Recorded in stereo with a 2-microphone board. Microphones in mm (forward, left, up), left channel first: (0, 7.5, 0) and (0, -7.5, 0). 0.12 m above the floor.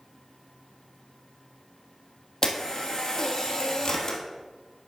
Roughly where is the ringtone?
No ringtone in this recording.